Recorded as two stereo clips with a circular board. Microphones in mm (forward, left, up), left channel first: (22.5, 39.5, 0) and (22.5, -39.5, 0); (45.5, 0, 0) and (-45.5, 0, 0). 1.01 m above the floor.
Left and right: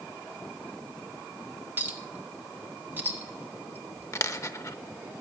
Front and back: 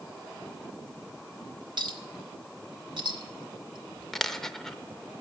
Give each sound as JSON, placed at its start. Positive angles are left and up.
{"t": 1.8, "sound": "a clink", "azimuth_deg": -155, "distance_m": 1.3}
{"t": 4.1, "sound": "a dropped coin", "azimuth_deg": 85, "distance_m": 0.8}